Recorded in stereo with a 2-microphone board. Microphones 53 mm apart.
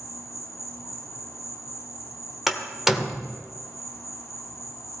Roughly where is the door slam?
Centre.